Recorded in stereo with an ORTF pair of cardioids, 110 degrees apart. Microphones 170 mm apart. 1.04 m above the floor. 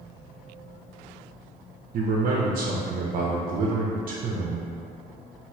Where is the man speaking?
60° right, 0.5 m.